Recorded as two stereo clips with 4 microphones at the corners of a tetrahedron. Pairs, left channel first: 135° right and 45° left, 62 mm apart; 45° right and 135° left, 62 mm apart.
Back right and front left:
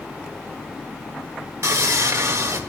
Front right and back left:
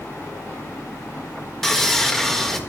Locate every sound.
1.6 s sawing: 35° left, 1.6 m